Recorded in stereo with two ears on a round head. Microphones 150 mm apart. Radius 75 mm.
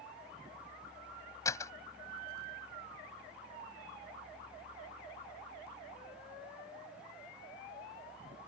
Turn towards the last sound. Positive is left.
turn(degrees=20)  # may be behind; listen again after turning